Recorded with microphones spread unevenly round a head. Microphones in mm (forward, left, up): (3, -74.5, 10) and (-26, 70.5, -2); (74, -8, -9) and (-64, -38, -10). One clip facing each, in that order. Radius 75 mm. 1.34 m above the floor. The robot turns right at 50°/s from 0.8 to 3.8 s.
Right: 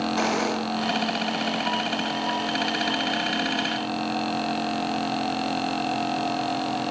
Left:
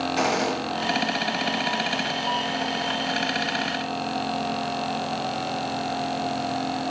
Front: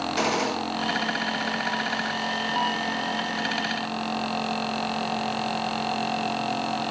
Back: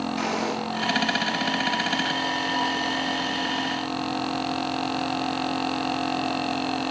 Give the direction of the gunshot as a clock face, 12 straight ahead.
11 o'clock.